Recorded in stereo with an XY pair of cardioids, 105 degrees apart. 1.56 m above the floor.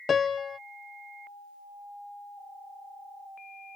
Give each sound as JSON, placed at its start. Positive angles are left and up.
{"t": 0.1, "sound": "a piano", "azimuth_deg": 40}